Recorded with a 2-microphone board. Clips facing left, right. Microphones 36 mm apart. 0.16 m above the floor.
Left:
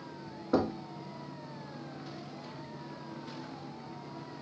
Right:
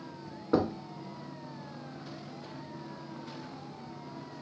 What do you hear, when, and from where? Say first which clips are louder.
0.5 s knocking: right 1 dB; 10° right (ahead or behind), 0.8 m